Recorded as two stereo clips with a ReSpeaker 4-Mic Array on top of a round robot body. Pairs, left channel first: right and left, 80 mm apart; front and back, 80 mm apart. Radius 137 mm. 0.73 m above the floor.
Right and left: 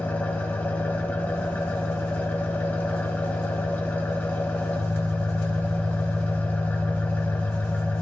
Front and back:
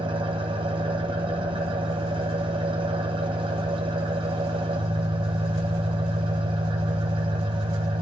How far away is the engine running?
About 1.0 m.